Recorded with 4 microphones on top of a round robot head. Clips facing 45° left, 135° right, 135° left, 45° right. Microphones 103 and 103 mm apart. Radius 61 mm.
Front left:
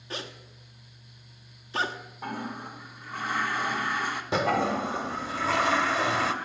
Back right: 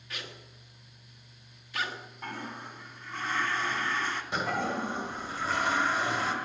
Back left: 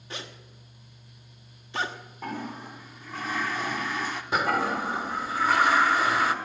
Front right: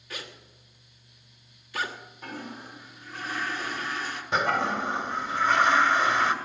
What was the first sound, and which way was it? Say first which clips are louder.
A zipper: front left 6 dB, back left 1 dB; 90° left.